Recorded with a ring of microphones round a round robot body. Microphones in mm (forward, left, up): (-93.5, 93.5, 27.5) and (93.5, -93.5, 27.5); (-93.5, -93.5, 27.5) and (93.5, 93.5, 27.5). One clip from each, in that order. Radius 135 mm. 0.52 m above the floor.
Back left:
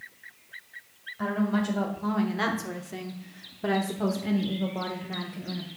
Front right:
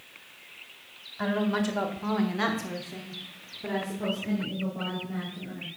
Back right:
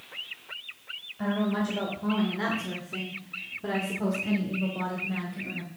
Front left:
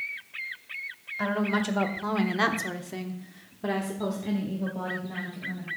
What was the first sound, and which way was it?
A woman speaking, 15° left.